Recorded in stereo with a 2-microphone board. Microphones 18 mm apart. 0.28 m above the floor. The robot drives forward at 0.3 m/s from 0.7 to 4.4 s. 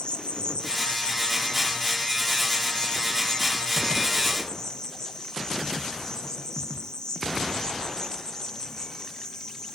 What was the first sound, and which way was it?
An insect, 65° left (ahead or behind).